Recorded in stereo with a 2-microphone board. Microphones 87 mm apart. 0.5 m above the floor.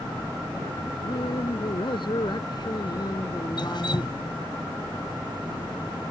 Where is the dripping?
60° left (ahead or behind).